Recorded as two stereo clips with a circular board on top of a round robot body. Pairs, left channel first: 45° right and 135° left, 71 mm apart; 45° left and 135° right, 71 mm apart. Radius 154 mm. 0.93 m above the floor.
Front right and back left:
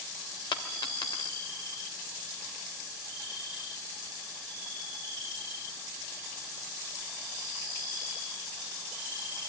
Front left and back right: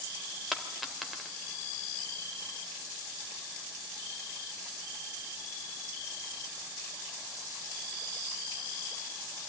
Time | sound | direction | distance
0.5 | a dropped coin | 45° right | 2 m